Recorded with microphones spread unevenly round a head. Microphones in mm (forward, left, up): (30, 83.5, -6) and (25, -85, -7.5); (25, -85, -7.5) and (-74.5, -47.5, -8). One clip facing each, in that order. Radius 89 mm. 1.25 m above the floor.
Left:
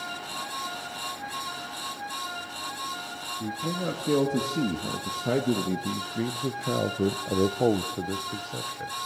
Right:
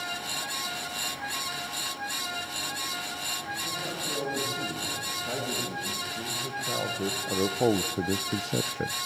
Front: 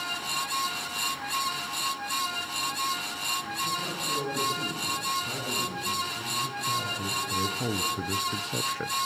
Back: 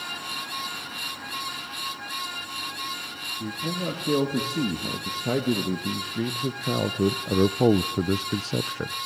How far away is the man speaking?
About 2.5 m.